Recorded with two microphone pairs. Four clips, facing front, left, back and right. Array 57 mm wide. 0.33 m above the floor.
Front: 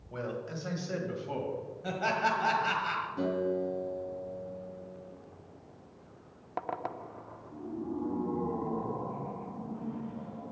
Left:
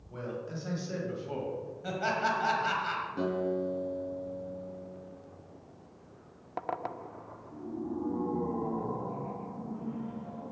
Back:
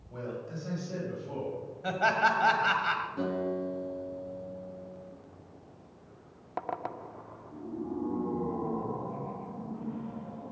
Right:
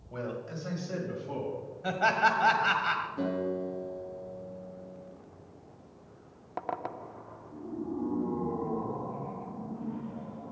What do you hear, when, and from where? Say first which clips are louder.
0.1 s a man speaking: right 1 dB, front 1 dB; 45° right, 2 m; by 1.6 s 15° left, 2.5 m
1.8 s laughter: right 5 dB, back 4 dB; 135° right, 1.6 m
3.2 s a guitar: left 1 dB, front 1 dB; 100° left, 3.5 m